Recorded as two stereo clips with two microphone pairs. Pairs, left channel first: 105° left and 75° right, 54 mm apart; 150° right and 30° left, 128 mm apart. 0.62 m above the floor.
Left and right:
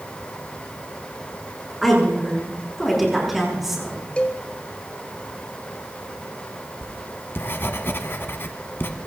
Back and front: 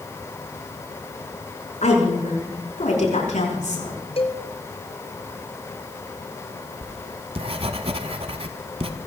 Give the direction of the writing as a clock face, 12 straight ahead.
10 o'clock.